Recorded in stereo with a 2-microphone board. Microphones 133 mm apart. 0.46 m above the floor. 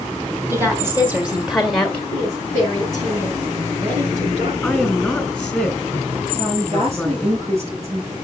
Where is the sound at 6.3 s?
50° right (ahead or behind), 7 m.